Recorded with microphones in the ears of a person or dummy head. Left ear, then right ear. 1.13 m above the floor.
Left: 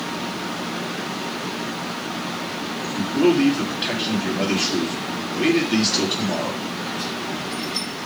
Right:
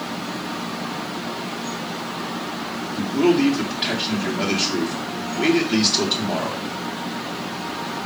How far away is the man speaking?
About 2.5 m.